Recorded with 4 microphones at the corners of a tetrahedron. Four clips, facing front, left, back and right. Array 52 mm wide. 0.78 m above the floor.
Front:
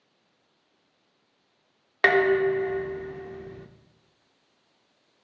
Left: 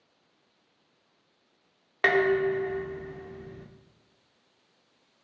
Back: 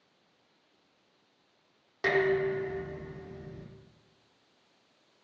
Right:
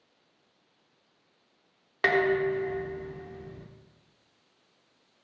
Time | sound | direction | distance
2.0 | dishes clattering | 15° left | 1.4 m